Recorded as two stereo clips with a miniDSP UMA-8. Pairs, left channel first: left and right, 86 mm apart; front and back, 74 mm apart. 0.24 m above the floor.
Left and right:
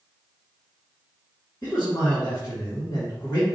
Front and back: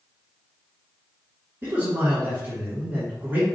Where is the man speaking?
140° left, 1.9 m.